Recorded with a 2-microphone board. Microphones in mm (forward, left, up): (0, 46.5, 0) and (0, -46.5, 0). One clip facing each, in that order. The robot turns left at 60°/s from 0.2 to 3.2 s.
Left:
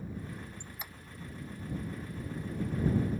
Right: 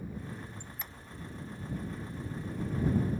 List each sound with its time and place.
0.6 s a squeak: 25° left (ahead or behind); by 0.9 s 5° left (ahead or behind)